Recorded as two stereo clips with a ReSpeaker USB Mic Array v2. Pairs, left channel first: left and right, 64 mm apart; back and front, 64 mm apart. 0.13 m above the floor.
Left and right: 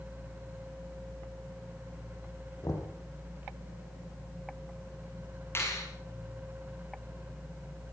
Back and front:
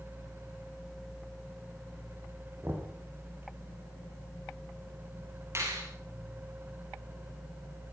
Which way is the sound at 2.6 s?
55° left.